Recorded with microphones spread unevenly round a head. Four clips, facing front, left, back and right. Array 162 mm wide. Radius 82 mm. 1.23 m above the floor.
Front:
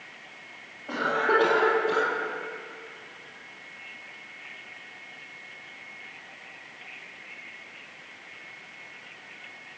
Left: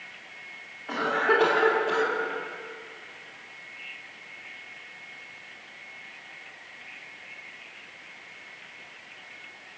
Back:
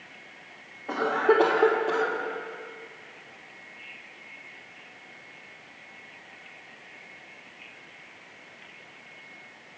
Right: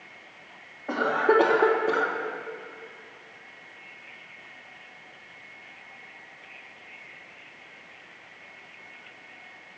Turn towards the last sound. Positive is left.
turn(degrees=-115)